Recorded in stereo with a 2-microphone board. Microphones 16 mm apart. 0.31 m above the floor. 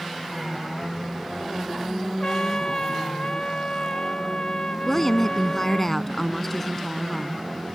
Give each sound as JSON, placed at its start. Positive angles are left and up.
{"t": 2.2, "sound": "a trumpet", "side_deg": 50}
{"t": 4.9, "sound": "a woman speaking", "side_deg": 15}